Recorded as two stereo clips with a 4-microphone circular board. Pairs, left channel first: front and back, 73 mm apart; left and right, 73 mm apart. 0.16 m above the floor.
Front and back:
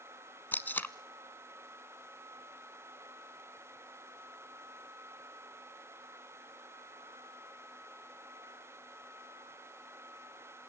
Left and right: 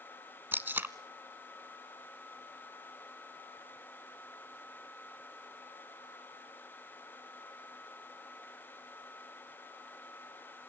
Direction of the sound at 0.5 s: 45° right.